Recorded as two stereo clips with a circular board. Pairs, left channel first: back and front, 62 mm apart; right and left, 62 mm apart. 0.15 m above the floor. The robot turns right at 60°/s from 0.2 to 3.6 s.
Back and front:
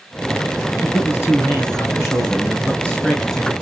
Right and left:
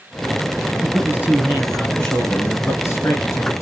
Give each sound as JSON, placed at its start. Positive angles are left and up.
{"t": 0.8, "sound": "a man speaking", "azimuth_deg": 125, "distance_m": 2.0}